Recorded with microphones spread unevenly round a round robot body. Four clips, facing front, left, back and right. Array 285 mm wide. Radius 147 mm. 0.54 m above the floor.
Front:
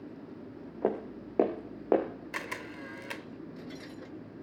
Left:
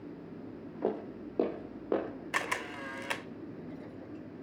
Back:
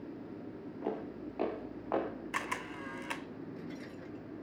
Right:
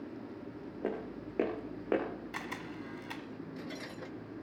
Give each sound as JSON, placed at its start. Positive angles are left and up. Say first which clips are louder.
{"t": 0.8, "sound": "footsteps", "louder": "left 4 dB, front 7 dB", "azimuth_deg": 20, "distance_m": 2.5}
{"t": 2.3, "sound": "a camera shutter", "louder": "left 6 dB, back 1 dB", "azimuth_deg": 65, "distance_m": 0.5}